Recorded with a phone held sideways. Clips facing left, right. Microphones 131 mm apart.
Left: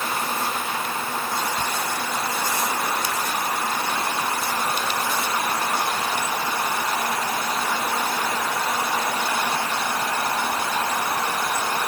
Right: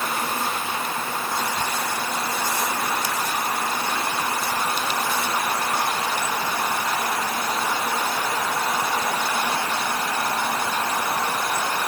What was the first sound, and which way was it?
Only background noise.